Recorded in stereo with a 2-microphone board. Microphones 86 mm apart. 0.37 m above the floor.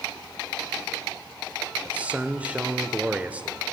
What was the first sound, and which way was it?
A man speaking, 15° right (ahead or behind).